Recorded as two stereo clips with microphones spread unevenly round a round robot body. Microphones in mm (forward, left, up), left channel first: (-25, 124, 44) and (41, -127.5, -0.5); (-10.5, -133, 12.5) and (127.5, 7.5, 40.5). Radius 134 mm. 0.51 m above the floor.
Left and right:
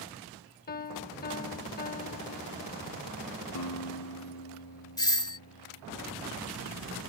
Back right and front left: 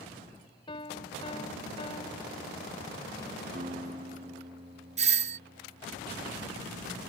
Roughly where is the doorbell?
Ahead left.